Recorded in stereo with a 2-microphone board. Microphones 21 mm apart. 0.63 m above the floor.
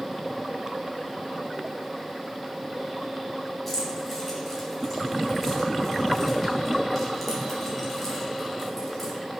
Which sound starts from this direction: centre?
Keys jangling, at 3.7 s.